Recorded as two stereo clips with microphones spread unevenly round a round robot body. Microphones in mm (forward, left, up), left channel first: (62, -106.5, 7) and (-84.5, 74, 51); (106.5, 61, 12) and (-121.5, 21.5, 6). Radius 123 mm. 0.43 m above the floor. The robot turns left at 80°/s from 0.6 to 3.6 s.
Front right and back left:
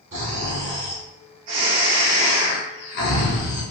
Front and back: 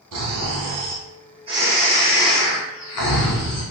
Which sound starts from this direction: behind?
Snoring, at 0.1 s.